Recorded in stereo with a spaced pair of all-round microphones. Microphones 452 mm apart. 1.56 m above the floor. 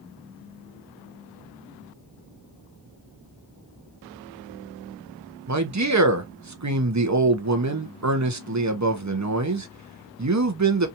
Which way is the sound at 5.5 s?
40° right (ahead or behind).